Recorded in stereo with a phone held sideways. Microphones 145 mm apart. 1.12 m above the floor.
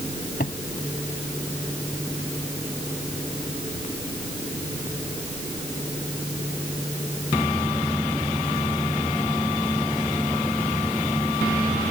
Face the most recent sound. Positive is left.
turn(degrees=80)